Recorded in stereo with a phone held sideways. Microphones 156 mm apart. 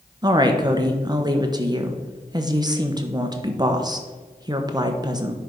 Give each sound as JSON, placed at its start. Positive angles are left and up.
{"t": 0.2, "sound": "a woman speaking", "side_deg": -25, "distance_m": 1.0}